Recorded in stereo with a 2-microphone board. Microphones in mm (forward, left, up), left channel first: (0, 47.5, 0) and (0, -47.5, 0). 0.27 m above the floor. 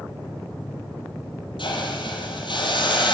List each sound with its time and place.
1.6 s a hiss: 70° left (ahead or behind), 7 m